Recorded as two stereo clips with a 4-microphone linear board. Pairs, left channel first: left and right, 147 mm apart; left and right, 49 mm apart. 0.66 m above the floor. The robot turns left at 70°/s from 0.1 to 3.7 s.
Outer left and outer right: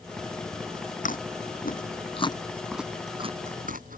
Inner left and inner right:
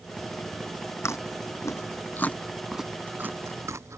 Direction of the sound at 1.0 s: 60° left (ahead or behind).